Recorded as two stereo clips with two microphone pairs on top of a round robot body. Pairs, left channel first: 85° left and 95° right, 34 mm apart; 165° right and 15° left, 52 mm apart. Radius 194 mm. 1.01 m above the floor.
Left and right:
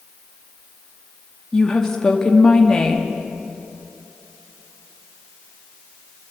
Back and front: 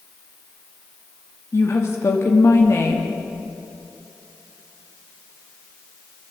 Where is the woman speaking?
160° left, 2.5 m.